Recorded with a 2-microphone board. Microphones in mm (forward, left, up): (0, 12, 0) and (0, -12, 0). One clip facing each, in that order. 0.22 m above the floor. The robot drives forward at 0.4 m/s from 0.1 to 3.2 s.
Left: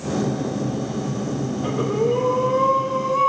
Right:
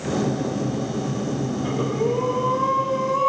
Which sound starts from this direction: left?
Breathing, at 1.6 s.